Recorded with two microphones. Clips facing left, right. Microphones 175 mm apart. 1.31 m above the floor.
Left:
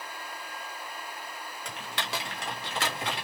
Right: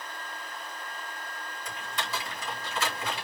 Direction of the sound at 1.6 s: 75° left (ahead or behind).